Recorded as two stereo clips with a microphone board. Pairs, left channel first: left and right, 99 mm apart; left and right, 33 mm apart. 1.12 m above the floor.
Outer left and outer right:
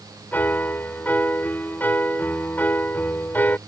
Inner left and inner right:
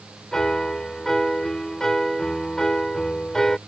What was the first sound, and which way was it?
A piano, 20° left (ahead or behind).